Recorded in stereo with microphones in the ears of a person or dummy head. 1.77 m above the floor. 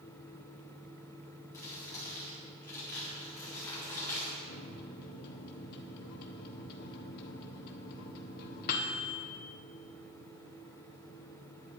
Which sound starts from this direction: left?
A microwave, at 4.5 s.